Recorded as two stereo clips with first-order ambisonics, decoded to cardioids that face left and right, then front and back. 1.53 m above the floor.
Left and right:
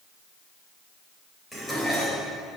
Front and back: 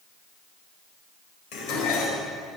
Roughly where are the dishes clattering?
Ahead.